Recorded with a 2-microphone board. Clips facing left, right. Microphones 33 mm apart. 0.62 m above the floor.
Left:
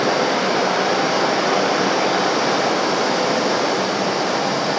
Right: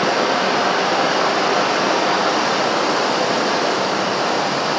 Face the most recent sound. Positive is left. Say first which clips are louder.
# right 1 dB
turn(degrees=-65)  # may be behind; listen again after turning